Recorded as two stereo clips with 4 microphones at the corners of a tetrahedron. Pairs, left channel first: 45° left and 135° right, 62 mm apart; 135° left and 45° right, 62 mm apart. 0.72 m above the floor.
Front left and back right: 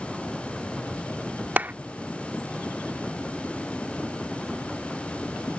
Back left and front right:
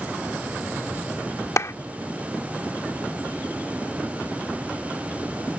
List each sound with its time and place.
1.6 s a clap: 165° left